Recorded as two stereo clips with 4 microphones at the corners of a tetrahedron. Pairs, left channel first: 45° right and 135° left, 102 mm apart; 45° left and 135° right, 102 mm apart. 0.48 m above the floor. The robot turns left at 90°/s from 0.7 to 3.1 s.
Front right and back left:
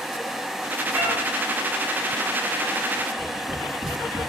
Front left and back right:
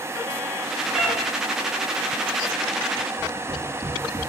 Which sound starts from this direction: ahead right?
Tapping, at 3.2 s.